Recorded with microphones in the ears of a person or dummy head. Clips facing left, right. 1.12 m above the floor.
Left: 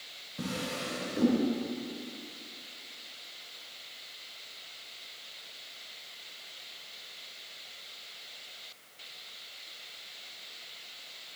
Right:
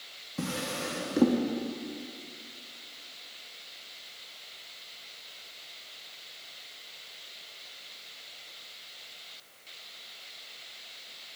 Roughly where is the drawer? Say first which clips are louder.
Right 2 dB; right.